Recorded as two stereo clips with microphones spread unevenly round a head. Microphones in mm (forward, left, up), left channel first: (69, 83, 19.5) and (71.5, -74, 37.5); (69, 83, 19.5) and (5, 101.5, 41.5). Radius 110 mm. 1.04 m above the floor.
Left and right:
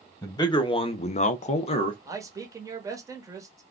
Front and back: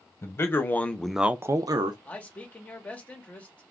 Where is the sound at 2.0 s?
20° right, 1.0 m.